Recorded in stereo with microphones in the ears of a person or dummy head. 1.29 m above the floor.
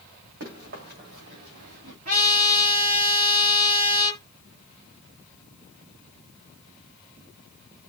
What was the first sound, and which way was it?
Running footsteps, 50° right (ahead or behind).